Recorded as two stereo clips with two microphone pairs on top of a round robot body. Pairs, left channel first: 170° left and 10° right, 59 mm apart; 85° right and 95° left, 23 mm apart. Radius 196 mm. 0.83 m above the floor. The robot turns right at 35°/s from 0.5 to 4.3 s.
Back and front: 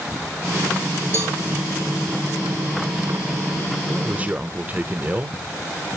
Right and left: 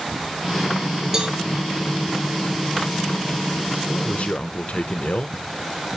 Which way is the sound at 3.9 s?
80° right.